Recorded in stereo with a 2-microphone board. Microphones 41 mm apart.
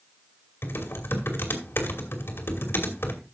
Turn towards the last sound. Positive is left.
turn(degrees=70)  # may be behind; listen again after turning